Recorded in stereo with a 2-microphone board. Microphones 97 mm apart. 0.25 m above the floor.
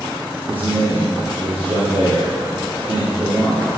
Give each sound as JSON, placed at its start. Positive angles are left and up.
{"t": 0.5, "sound": "a man speaking", "side_deg": -65, "distance_m": 5.0}